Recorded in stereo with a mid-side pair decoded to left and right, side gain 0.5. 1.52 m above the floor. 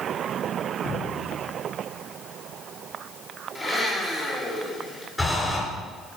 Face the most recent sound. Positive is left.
turn(degrees=15)